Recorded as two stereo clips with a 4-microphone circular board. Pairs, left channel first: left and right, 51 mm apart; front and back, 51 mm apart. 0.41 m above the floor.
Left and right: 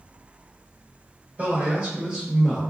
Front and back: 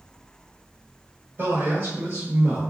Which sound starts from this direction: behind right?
A man speaking, at 1.4 s.